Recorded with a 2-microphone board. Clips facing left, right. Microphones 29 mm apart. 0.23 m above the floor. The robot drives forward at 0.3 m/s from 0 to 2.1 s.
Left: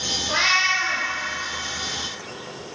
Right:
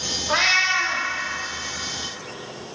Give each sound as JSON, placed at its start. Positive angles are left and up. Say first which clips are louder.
{"t": 0.3, "sound": "a cat meowing", "louder": "right 1 dB", "side_deg": -75, "distance_m": 1.7}